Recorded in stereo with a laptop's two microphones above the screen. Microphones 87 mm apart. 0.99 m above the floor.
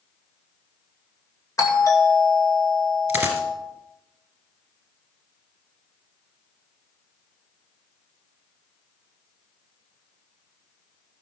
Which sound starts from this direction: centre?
A dropped coin, at 3.1 s.